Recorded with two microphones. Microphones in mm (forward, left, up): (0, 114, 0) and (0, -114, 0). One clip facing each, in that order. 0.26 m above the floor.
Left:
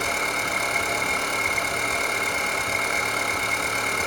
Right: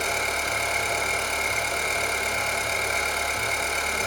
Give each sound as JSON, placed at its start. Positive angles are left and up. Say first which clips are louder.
{"t": 0.0, "sound": "an engine running", "louder": "left 1 dB", "side_deg": 65, "distance_m": 1.4}